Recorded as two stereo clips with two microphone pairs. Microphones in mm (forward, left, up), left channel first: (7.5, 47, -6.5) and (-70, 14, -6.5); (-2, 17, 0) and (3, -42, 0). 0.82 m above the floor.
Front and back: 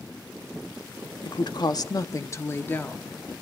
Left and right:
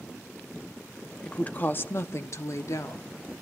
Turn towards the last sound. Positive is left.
turn(degrees=100)